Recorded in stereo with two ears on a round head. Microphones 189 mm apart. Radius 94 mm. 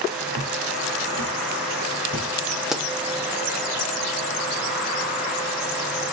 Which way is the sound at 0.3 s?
70° right (ahead or behind).